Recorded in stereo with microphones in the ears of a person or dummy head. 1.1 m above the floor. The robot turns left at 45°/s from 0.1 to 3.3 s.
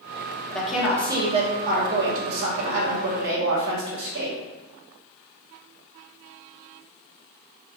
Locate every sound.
0.5 s a woman speaking: 5° left, 1.6 m; by 4.4 s 120° right, 1.6 m